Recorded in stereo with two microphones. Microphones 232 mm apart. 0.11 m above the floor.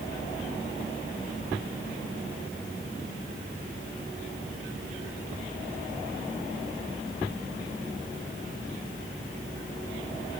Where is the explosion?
No explosion in this recording.